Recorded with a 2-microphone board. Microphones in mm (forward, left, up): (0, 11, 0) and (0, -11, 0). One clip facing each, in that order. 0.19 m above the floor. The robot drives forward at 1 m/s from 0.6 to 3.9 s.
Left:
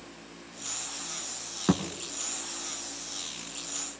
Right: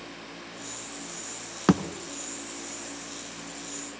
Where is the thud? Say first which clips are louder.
Right 4 dB; 35° right (ahead or behind), 0.8 m; by 1.8 s 40° right (ahead or behind), 0.7 m.